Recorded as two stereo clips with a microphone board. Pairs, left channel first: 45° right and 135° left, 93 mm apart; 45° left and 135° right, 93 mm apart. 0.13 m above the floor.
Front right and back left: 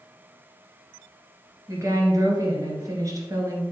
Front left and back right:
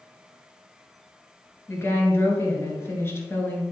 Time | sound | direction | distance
1.7 | a woman speaking | 100° left | 2 m